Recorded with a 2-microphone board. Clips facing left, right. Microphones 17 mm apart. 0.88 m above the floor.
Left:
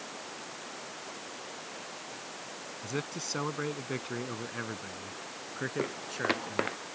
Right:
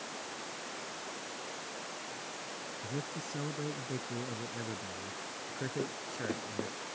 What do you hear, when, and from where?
2.8 s a man speaking: 65° left (ahead or behind); by 6.8 s 25° left (ahead or behind)
5.8 s footsteps: 70° left (ahead or behind)